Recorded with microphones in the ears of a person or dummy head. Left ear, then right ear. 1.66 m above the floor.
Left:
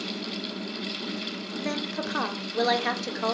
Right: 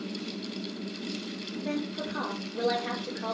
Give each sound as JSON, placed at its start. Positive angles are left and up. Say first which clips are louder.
{"t": 1.6, "sound": "a woman speaking", "louder": "left 3 dB", "side_deg": 80, "distance_m": 0.6}